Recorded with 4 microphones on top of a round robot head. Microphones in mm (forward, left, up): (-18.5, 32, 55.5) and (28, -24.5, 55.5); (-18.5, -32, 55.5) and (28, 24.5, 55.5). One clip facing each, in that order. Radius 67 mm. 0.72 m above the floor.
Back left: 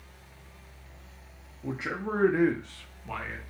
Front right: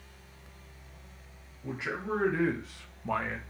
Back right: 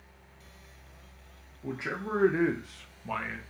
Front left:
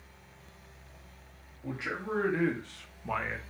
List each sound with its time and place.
1.6 s a man speaking: 170° left, 1.1 m; by 3.4 s 15° right, 0.8 m